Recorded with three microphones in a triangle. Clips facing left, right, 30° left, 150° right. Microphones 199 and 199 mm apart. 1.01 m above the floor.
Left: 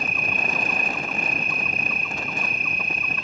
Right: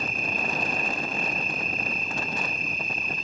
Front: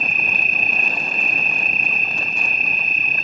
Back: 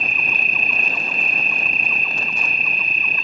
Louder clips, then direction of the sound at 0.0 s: Left 1 dB, front 1 dB; 75° left.